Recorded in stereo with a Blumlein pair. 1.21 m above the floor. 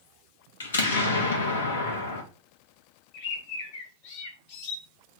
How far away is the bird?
About 0.7 m.